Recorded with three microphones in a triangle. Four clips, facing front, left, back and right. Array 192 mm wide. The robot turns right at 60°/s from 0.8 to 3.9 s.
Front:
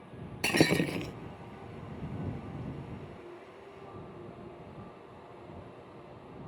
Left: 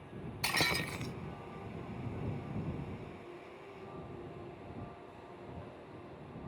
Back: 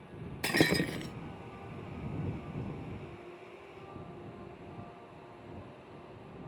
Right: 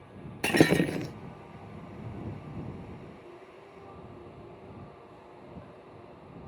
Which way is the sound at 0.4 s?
80° right.